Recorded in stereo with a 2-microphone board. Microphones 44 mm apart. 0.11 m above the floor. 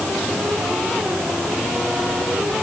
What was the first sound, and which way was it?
Only background noise.